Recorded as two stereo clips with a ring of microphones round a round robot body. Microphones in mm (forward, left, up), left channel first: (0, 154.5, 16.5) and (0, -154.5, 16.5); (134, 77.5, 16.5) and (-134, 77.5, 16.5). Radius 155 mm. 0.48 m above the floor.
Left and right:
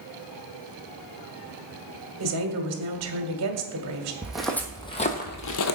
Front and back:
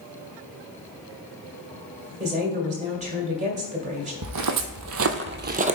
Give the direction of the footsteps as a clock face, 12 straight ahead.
6 o'clock.